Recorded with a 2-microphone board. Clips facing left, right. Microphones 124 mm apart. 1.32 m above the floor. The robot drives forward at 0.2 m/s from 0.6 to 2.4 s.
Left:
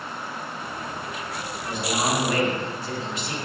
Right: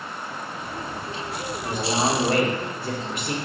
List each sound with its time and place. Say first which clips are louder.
1.6 s a man speaking: right 2 dB; 55° right (ahead or behind), 1.6 m; by 3.4 s 50° right (ahead or behind), 1.7 m